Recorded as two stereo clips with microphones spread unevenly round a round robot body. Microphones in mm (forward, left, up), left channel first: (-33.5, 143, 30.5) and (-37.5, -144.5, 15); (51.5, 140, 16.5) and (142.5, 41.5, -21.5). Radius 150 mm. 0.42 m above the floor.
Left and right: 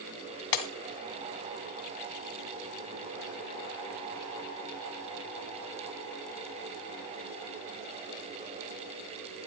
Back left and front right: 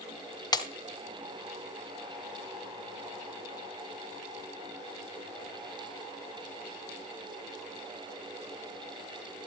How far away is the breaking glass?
About 1.9 m.